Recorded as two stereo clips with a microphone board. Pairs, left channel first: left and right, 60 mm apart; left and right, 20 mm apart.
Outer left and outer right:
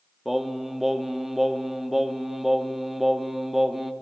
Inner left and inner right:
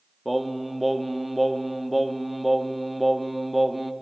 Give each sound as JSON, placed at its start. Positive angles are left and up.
{"t": 0.2, "sound": "singing", "side_deg": -5, "distance_m": 0.9}